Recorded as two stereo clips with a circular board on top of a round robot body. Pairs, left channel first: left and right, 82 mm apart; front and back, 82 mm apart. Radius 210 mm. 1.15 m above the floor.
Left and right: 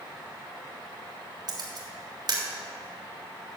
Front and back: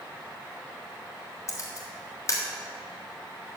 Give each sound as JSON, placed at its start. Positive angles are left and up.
{"t": 1.5, "sound": "a camera shutter", "azimuth_deg": -55, "distance_m": 2.5}